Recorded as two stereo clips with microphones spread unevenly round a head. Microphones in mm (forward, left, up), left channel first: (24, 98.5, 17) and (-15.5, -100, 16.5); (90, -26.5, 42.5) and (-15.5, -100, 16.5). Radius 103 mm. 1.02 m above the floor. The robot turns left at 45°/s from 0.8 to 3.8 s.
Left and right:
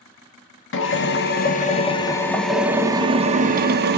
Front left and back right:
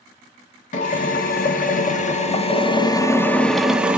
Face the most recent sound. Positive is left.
turn(degrees=-70)